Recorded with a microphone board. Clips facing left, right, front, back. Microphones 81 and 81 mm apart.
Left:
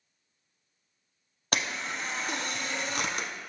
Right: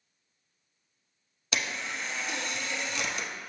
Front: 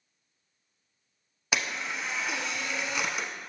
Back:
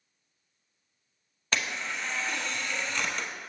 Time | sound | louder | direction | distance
1.5 | a camera shutter | left 1 dB, even | 80° left | 0.7 m